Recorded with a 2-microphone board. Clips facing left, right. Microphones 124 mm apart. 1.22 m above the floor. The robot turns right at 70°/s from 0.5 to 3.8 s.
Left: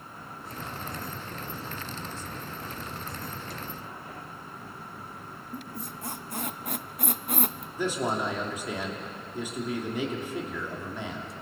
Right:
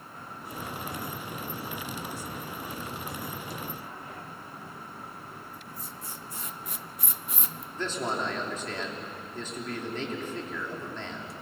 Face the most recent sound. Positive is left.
turn(degrees=10)  # may be behind; listen again after turning